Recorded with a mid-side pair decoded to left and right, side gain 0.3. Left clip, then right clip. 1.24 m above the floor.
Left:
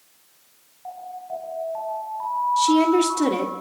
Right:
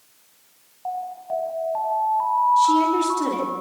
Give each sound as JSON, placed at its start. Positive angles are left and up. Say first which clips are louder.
{"t": 0.8, "sound": "an alarm", "louder": "right 5 dB", "azimuth_deg": -65, "distance_m": 7.5}
{"t": 2.6, "sound": "a woman speaking", "louder": "right 1 dB", "azimuth_deg": 65, "distance_m": 3.5}